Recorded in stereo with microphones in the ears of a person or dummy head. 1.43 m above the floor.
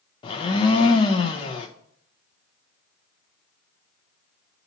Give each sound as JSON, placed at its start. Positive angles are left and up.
{"t": 0.2, "sound": "a blender", "side_deg": 25, "distance_m": 0.7}